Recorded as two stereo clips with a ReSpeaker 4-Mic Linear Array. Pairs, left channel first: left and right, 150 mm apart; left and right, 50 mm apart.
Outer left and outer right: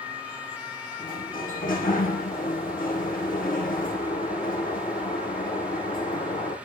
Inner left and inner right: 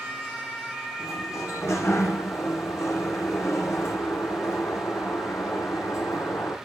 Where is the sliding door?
65° left (ahead or behind), 8.5 m.